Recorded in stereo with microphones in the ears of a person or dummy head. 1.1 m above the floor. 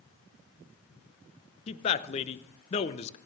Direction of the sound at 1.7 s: 35° left (ahead or behind).